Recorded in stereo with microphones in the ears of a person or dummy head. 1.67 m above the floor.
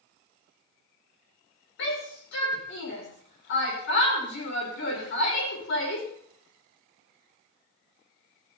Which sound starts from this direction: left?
A shout, at 1.8 s.